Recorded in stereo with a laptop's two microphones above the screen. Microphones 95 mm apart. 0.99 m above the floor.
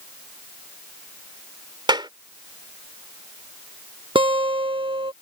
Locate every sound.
1.9 s a clap: 55° right (ahead or behind)
4.2 s a guitar: 65° right (ahead or behind)